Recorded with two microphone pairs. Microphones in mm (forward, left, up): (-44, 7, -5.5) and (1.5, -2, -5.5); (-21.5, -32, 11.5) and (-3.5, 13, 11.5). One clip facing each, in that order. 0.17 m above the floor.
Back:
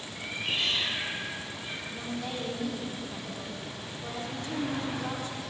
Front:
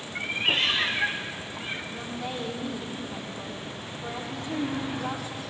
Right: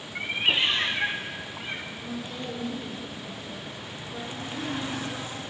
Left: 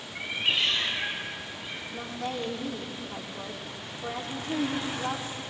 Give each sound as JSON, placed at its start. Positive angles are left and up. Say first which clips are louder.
{"t": 0.1, "sound": "a cat meowing", "louder": "front 7 dB, right 3 dB", "azimuth_deg": -50, "distance_m": 4.5}
{"t": 1.9, "sound": "a woman speaking", "louder": "front 2 dB, left 2 dB", "azimuth_deg": 65, "distance_m": 8.0}